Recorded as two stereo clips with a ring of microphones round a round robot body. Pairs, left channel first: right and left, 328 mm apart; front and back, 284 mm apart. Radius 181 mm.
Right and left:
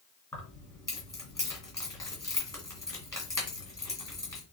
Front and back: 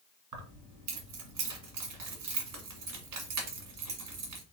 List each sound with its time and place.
0.3 s keys jangling: 170° right, 2 m